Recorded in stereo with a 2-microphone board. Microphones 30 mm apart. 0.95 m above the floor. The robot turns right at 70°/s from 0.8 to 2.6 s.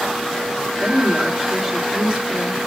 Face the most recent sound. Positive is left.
turn(degrees=-120)